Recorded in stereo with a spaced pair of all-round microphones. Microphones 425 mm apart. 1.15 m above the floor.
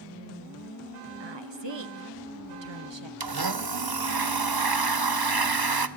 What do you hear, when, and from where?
1.2 s a woman speaking: 85° right, 0.9 m
3.2 s a blender: 60° right (ahead or behind), 0.8 m